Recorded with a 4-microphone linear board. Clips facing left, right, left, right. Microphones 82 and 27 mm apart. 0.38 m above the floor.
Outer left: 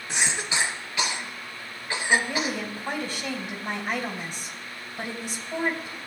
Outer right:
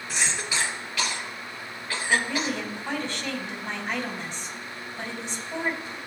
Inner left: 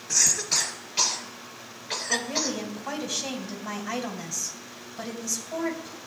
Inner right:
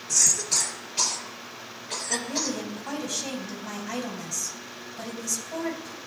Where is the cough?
20° left (ahead or behind), 2.5 m.